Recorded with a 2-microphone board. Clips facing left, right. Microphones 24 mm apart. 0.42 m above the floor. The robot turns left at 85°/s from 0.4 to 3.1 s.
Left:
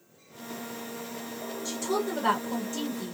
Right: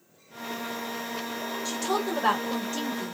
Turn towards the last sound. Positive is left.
turn(degrees=-160)